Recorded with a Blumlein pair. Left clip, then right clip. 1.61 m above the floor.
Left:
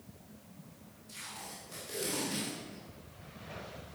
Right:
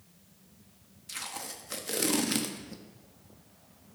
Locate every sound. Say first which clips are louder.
1.1 s tape being pulled: right 6 dB; 35° right, 0.9 m